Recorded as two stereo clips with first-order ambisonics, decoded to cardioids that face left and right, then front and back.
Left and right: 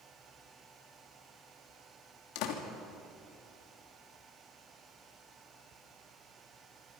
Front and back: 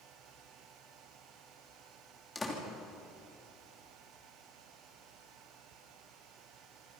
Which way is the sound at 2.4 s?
80° left.